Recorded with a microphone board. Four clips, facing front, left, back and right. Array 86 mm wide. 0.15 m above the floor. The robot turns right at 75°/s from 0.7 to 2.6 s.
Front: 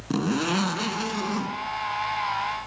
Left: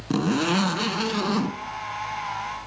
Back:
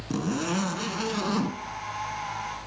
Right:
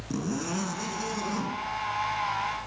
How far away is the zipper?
About 0.6 m.